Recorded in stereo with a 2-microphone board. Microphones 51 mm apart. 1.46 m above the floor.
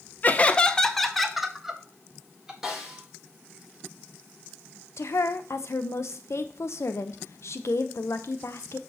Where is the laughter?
35° left (ahead or behind), 0.6 m; by 2.5 s 15° right (ahead or behind), 1.8 m.